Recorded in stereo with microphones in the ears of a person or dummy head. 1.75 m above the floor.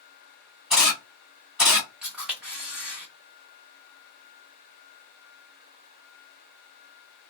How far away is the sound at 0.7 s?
About 1.1 m.